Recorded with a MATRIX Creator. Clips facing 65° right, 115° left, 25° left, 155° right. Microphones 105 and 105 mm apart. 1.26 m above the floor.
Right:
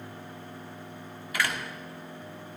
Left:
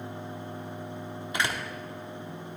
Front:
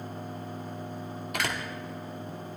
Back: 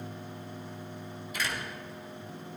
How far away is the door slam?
About 1.6 m.